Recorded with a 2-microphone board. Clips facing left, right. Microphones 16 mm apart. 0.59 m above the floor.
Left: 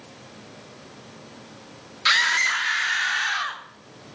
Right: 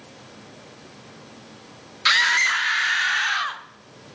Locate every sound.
2.0 s a scream: 5° right (ahead or behind), 1.2 m; by 3.6 s 15° right (ahead or behind), 1.8 m